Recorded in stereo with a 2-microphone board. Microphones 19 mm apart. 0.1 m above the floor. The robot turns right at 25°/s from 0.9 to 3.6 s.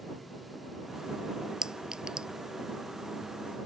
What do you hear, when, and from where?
1.6 s a clink: 45° right (ahead or behind); by 2.3 s 50° right (ahead or behind)